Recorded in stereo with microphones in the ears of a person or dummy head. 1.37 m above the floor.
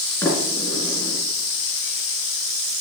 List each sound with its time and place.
0.2 s a sliding door: 15° left (ahead or behind), 3.5 m